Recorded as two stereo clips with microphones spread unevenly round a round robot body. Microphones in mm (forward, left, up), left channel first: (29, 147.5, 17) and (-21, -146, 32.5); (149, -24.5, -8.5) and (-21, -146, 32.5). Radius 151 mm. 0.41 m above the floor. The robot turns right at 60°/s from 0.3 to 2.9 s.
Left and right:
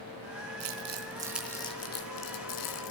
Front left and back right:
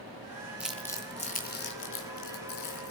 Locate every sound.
0.6 s crumpling: 60° right, 3 m; by 2.9 s 80° left, 3 m